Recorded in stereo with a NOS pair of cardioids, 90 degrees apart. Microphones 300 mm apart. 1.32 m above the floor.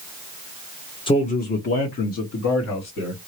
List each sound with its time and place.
1.1 s a man speaking: 15° left, 0.7 m; by 3.2 s 65° left, 1.6 m